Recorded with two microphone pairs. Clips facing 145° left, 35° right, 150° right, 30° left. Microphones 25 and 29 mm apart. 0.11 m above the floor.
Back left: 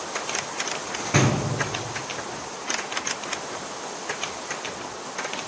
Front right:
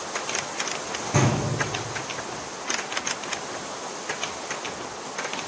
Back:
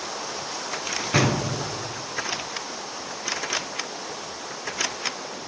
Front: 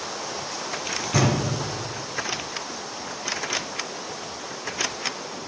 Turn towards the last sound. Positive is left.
turn(degrees=175)